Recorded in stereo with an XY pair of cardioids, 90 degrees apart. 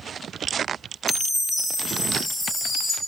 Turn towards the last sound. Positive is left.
turn(degrees=45)